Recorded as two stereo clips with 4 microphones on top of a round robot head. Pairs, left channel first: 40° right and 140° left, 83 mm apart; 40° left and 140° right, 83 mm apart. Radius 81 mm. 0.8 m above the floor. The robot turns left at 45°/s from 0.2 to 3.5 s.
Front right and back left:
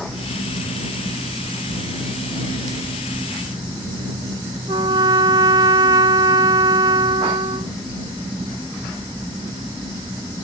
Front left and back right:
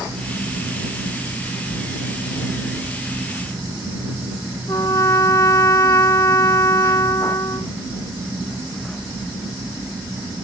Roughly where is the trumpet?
Left.